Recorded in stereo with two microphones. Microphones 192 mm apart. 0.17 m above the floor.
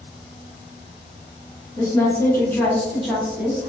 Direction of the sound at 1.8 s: 20° left (ahead or behind).